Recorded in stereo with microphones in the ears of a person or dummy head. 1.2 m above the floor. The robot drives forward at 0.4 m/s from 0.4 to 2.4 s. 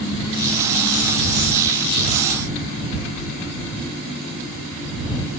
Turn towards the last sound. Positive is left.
No sound to turn to.